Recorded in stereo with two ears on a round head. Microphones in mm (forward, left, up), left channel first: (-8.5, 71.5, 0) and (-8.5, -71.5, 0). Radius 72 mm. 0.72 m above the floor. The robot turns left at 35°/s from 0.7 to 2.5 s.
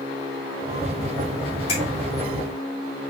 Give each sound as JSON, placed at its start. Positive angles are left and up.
{"t": 1.7, "sound": "a finger snap", "side_deg": 40, "distance_m": 3.0}